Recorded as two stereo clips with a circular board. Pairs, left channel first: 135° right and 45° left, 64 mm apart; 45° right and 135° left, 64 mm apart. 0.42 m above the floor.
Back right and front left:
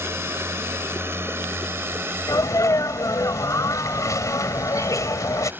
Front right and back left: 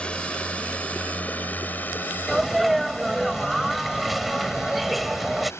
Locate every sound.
0.0 s a drone: 20° left; by 5.6 s 10° right
2.3 s a sneeze: 135° right